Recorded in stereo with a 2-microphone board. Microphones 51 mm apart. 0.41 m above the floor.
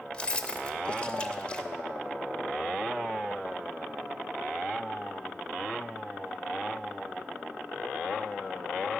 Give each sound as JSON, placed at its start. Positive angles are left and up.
{"t": 0.1, "sound": "keys jangling", "side_deg": 20, "distance_m": 0.9}